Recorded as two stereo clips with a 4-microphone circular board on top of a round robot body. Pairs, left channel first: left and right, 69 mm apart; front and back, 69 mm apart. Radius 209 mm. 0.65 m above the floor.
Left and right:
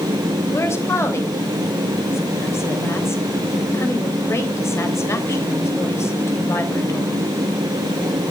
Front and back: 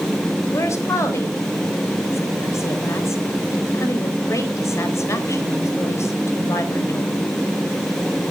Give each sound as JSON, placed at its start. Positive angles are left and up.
{"t": 0.5, "sound": "a woman speaking", "azimuth_deg": 45, "distance_m": 3.5}